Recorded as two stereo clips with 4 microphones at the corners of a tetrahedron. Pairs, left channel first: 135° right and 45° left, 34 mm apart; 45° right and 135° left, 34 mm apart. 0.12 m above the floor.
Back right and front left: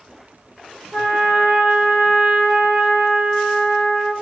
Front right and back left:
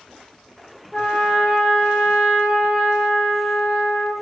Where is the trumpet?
45° left, 0.6 m.